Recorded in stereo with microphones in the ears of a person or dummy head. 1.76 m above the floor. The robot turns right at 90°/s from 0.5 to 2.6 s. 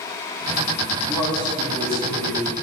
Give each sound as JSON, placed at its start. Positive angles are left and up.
{"t": 1.1, "sound": "a man speaking", "azimuth_deg": 155, "distance_m": 3.5}